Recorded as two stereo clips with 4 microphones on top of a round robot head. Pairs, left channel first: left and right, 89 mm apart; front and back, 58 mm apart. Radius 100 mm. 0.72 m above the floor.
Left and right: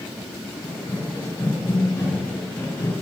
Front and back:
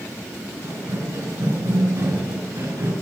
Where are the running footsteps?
155° left, 7.5 m; by 2.9 s 150° left, 6 m.